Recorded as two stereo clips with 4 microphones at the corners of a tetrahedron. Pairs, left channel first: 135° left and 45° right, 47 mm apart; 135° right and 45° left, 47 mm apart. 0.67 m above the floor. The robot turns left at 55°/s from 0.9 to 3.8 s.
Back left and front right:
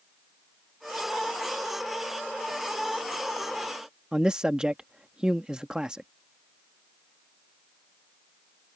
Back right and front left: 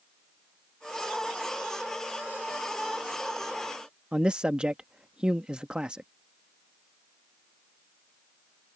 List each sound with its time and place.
4.1 s a man speaking: 5° left